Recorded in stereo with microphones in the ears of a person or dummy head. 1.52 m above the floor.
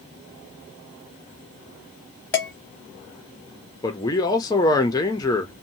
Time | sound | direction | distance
2.3 | dishes clattering | 15° left (ahead or behind) | 0.8 m
3.8 | a man speaking | 15° left (ahead or behind) | 0.7 m